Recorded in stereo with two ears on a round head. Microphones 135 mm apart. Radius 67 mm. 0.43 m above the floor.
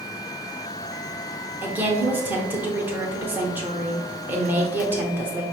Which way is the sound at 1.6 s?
15° right (ahead or behind).